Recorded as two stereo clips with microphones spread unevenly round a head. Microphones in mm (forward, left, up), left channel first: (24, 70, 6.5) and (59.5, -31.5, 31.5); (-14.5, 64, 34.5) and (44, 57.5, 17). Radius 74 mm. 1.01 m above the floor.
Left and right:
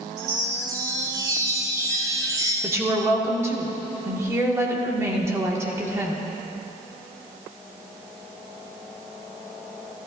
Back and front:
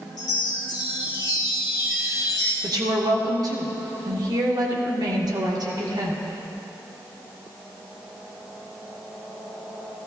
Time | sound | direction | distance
0.2 | a chime | 140° right | 0.9 m
2.6 | a woman speaking | 5° right | 2 m